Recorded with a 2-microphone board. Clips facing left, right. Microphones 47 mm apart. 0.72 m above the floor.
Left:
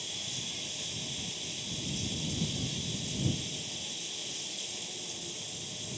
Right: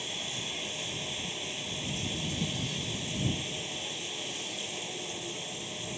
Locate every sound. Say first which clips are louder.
0.0 s running water: right 4 dB; 30° right (ahead or behind)